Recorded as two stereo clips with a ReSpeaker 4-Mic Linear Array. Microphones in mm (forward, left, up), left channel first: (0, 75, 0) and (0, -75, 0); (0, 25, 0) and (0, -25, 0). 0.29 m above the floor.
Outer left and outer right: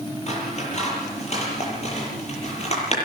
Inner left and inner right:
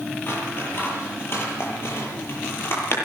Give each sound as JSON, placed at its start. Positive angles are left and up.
{"t": 0.3, "sound": "scissors", "side_deg": 45, "distance_m": 8.0}